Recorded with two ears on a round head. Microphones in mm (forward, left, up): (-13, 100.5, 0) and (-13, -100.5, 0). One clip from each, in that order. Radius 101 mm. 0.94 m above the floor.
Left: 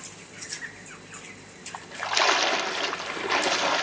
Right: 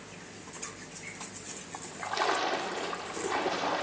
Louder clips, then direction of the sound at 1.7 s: Left 7 dB; 75° left (ahead or behind).